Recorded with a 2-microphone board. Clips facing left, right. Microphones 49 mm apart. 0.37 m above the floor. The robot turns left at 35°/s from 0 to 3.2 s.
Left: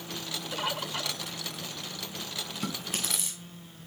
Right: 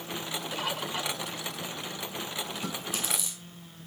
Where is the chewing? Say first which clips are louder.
Even; 65° left (ahead or behind), 5.5 m; by 3.4 s 45° left (ahead or behind), 5.5 m.